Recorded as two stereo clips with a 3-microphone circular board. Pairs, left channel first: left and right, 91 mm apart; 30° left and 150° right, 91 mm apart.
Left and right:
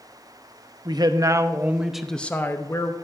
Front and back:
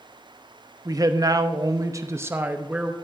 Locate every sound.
0.8 s a man speaking: 110° right, 0.8 m; by 2.9 s 135° left, 0.8 m